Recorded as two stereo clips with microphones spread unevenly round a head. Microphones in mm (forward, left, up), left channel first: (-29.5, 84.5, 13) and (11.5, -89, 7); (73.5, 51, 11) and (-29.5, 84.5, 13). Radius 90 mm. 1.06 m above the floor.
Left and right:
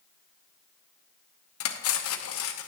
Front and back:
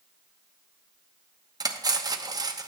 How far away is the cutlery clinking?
About 1.0 m.